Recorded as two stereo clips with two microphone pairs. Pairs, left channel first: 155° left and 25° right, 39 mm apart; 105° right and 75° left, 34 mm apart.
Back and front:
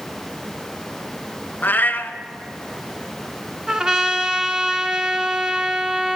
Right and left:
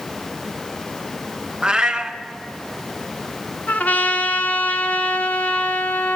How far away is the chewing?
I don't hear chewing.